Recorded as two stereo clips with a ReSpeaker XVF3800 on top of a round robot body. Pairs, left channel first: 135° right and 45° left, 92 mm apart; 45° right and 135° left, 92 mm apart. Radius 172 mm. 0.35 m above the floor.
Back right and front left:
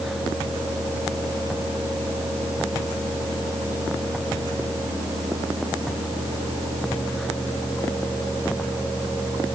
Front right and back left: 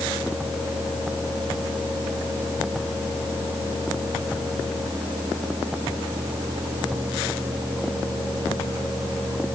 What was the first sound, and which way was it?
Only background noise.